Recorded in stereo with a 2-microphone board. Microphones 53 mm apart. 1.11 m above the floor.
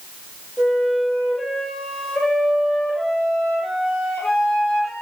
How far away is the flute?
About 5 m.